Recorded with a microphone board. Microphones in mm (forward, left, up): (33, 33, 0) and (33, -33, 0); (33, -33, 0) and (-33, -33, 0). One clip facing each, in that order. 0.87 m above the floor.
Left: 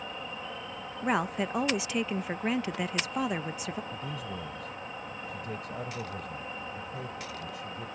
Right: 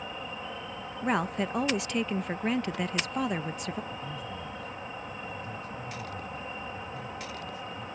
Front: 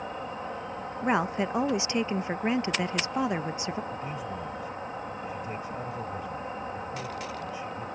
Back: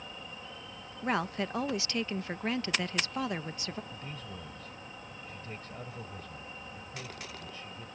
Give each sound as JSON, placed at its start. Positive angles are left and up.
{"t": 0.0, "sound": "an insect", "azimuth_deg": -5}
{"t": 1.0, "sound": "a woman speaking", "azimuth_deg": 0}
{"t": 3.9, "sound": "a man speaking", "azimuth_deg": 75}